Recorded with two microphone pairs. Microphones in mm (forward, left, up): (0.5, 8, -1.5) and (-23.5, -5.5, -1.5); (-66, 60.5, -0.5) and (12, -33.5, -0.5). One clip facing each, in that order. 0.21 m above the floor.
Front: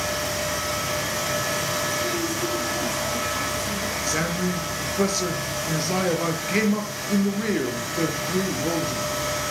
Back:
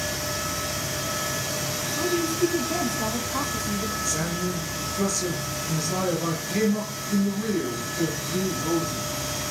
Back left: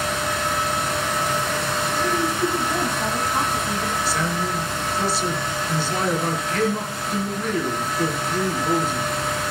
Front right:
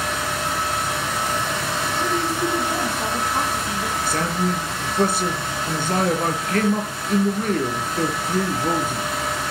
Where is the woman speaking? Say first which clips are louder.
Back 1 dB, back left 1 dB; 125° right, 2.5 m; by 4.0 s 160° right, 1.6 m.